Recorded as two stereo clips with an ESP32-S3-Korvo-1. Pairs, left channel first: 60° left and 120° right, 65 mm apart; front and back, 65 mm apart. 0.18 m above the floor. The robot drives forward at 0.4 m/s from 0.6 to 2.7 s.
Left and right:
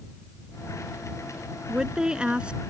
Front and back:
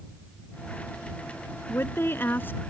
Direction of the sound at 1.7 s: 45° right.